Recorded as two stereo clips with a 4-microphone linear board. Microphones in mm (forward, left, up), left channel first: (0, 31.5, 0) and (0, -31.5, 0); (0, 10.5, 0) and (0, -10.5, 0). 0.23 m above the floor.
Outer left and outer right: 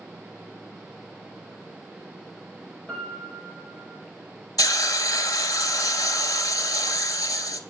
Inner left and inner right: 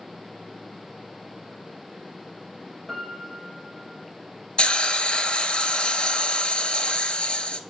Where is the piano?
20° left (ahead or behind), 1.2 m.